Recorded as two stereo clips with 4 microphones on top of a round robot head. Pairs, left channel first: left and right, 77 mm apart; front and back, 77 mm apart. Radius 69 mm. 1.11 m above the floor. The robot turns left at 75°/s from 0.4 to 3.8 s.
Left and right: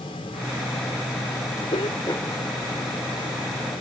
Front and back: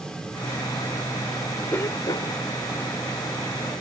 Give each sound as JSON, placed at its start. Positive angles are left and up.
{"t": 1.7, "sound": "a cough", "azimuth_deg": 60}